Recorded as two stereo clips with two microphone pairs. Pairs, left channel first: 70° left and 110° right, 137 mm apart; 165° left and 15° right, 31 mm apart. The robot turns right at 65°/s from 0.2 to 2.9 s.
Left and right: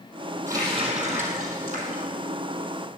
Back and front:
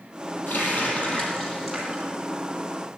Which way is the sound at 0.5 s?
Straight behind.